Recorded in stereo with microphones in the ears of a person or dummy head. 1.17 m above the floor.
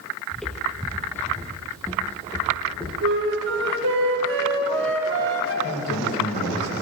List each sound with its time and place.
0.3 s footsteps: centre (ahead or behind), 1.7 m; by 2.9 s 10° left (ahead or behind), 3.5 m
3.0 s a flute: 65° right (ahead or behind), 3.5 m
5.6 s a man speaking: 55° left (ahead or behind), 5.5 m